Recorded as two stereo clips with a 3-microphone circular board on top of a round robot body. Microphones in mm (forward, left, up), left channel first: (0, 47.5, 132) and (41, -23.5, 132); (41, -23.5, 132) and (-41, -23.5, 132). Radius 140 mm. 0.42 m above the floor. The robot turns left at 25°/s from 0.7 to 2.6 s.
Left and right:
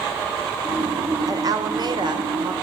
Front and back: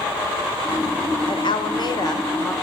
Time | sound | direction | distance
1.3 | a woman speaking | 15° right | 1.6 m